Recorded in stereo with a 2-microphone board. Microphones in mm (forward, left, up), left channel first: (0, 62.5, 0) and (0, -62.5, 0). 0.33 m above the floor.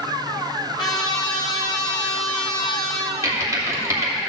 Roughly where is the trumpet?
Left.